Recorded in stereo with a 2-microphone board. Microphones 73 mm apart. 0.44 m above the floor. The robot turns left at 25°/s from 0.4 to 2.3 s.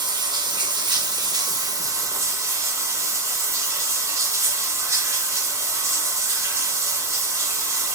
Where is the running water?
90° right, 0.8 m; by 8.0 s 140° right, 0.8 m.